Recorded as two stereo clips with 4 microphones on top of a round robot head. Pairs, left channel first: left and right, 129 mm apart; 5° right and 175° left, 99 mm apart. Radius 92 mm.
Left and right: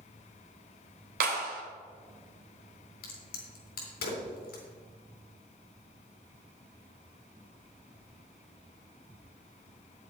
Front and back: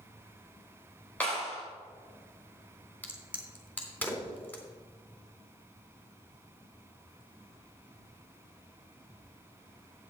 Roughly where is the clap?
Right.